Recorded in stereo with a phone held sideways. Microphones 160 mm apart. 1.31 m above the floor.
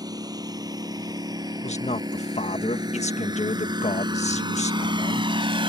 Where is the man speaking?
40° left (ahead or behind).